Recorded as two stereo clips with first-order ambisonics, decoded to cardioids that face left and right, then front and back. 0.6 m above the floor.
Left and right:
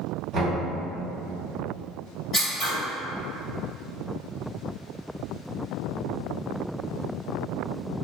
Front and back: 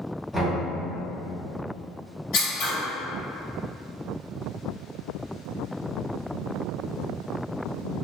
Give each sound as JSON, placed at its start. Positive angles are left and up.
{"t": 0.3, "sound": "knocking", "azimuth_deg": -95, "distance_m": 0.9}
{"t": 2.3, "sound": "scissors", "azimuth_deg": 0, "distance_m": 1.9}